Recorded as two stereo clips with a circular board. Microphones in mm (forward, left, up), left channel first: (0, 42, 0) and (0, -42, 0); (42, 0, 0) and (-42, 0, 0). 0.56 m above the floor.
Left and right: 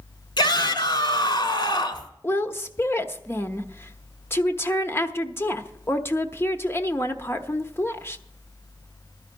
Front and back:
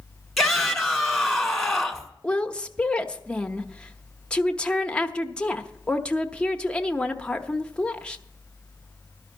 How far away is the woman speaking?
About 0.8 m.